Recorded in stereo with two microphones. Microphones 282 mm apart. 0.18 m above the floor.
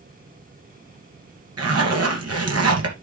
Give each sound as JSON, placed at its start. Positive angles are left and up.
{"t": 1.6, "sound": "a zipper", "side_deg": -55, "distance_m": 2.5}